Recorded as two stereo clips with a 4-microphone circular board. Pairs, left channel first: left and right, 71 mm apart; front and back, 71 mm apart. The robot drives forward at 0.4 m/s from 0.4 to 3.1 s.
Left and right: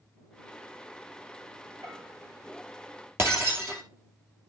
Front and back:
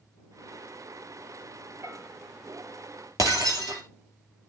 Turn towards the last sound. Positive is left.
turn(degrees=-145)